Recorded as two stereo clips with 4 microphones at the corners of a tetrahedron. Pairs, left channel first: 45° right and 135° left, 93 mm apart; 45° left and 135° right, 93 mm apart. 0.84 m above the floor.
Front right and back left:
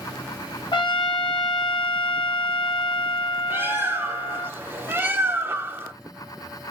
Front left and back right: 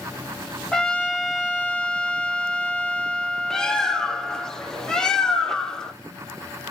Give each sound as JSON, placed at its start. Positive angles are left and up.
{"t": 0.7, "sound": "a trumpet", "azimuth_deg": -35, "distance_m": 0.5}
{"t": 3.5, "sound": "a bird", "azimuth_deg": 120, "distance_m": 0.5}